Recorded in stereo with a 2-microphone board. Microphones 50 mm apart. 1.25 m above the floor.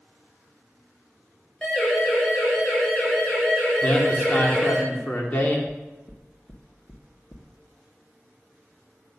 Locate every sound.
1.6 s a siren: 10° left (ahead or behind), 8 m; by 4.8 s 5° left (ahead or behind), 9.5 m
3.8 s a man speaking: 40° left (ahead or behind), 3 m
5.7 s knocking: 75° left (ahead or behind), 1.7 m